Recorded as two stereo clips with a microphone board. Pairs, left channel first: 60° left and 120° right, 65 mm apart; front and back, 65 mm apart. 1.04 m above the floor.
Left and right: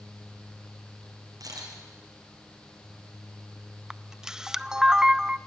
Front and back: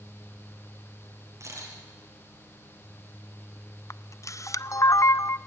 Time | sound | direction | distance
1.4 | a camera shutter | 140° right | 7 m
3.9 | a camera shutter | 40° right | 0.5 m